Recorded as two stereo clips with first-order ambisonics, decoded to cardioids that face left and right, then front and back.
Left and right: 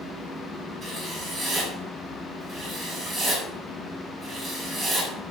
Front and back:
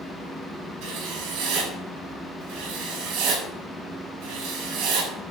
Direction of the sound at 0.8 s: Straight behind.